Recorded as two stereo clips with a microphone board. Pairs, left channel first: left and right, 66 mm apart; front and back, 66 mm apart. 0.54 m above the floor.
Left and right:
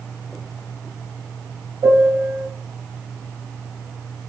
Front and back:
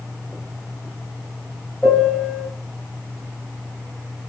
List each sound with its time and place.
1.8 s a piano: 85° right, 1.1 m